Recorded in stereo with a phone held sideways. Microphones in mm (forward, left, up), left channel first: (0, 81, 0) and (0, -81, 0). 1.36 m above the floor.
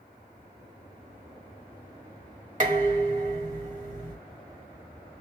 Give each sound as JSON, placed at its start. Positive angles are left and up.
{"t": 2.6, "sound": "dishes clattering", "side_deg": -55, "distance_m": 1.7}